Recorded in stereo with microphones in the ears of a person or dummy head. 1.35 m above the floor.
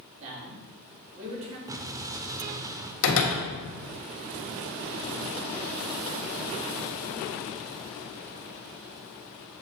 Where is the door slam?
75° left (ahead or behind), 1.4 m.